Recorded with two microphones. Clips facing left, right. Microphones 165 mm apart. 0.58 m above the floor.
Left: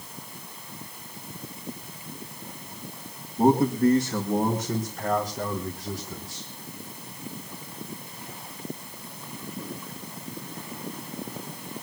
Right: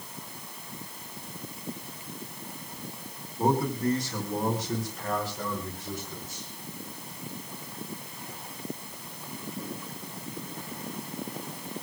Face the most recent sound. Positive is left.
turn(degrees=30)  # may be behind; listen again after turning